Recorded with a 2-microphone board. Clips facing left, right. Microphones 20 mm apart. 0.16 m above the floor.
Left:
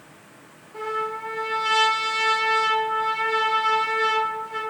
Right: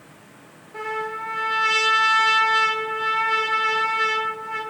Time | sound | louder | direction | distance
0.7 | a trumpet | even | 40° right (ahead or behind) | 1.6 m